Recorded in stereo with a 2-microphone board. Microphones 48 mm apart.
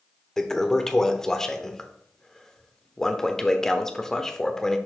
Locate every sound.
0.4 s a toilet flushing: 10° left (ahead or behind), 0.7 m